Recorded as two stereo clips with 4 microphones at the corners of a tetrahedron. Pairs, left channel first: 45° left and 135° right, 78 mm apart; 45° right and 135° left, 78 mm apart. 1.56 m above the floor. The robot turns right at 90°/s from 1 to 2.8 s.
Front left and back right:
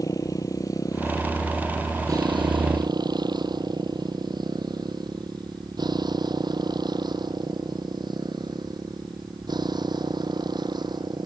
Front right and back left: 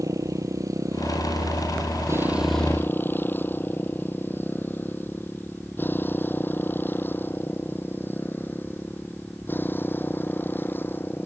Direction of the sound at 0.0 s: 90° left.